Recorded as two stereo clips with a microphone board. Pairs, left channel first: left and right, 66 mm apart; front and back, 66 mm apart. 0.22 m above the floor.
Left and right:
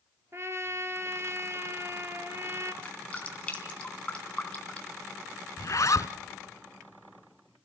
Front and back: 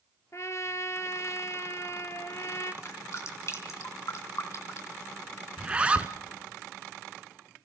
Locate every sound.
0.3 s a trumpet: 40° right, 1.2 m
2.8 s dripping: 25° left, 2.5 m
5.6 s a zipper: 110° left, 0.9 m